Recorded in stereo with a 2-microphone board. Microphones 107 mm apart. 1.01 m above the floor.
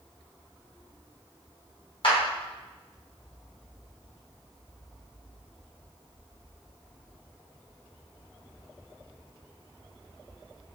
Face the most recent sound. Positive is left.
turn(degrees=60)  # may be behind; listen again after turning